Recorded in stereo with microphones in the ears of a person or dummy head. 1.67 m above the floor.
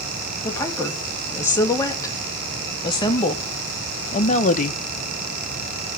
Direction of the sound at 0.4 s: 15° left (ahead or behind).